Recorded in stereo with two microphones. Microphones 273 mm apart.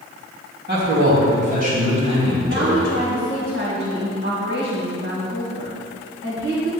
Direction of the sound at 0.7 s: 40° right (ahead or behind).